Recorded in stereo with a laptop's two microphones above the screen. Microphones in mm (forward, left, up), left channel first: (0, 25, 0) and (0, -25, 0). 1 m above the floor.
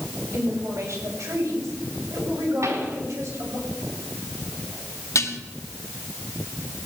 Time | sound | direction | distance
0.3 | a woman speaking | 70° right (ahead or behind) | 6.5 m
2.6 | a pop | 80° right | 3.5 m
5.2 | dishes clattering | 75° left (ahead or behind) | 1.2 m